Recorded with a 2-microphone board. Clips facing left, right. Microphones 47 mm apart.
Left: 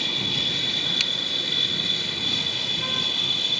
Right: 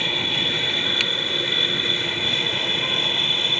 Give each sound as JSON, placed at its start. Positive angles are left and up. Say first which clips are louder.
{"t": 0.0, "sound": "an aircraft", "louder": "right 4 dB", "side_deg": -30}
{"t": 1.0, "sound": "a finger snap", "louder": "right 4 dB", "side_deg": -30}